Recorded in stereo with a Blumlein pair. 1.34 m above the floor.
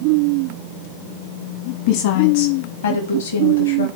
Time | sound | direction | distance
1.9 | a woman speaking | 50° left | 1.1 m